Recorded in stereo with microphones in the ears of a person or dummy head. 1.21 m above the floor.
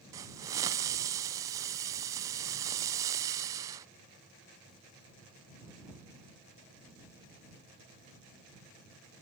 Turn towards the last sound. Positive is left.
turn(degrees=-15)  # may be behind; listen again after turning